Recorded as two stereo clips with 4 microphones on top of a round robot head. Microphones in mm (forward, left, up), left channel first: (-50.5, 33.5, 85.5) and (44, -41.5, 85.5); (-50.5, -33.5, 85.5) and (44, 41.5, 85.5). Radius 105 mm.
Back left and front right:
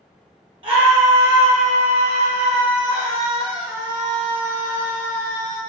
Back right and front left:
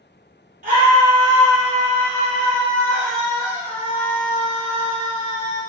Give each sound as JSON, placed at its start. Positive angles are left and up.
{"t": 0.6, "sound": "a scream", "azimuth_deg": 15, "distance_m": 0.6}